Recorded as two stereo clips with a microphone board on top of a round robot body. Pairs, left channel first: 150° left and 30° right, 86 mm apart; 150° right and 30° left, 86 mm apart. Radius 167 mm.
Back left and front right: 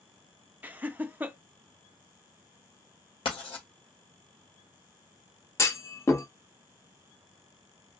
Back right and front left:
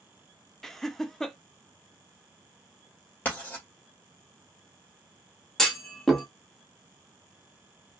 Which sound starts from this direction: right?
Laughter, at 0.6 s.